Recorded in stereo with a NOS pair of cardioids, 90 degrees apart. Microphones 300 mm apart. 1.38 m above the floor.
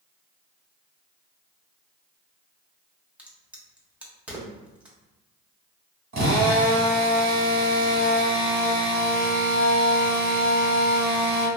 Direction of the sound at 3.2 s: 5° right.